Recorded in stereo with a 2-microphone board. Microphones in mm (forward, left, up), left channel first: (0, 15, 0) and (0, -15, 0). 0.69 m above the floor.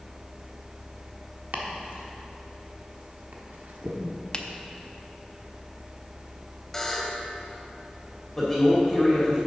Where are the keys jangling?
I don't hear keys jangling.